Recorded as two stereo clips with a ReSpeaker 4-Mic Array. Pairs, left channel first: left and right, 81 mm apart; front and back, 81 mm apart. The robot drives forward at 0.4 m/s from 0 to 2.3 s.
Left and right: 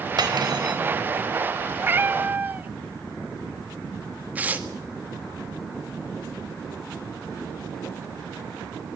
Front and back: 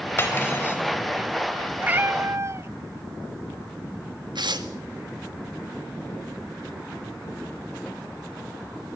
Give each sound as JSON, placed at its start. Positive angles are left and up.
{"t": 0.2, "sound": "cutlery clinking", "azimuth_deg": -60, "distance_m": 4.5}
{"t": 1.8, "sound": "a cat meowing", "azimuth_deg": -125, "distance_m": 0.6}
{"t": 4.3, "sound": "tearing paper", "azimuth_deg": -160, "distance_m": 1.8}